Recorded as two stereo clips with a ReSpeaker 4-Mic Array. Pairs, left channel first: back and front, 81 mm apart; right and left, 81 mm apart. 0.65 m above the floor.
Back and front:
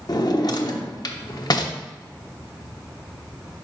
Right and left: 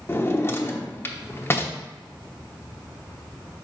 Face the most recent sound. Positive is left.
turn(degrees=-150)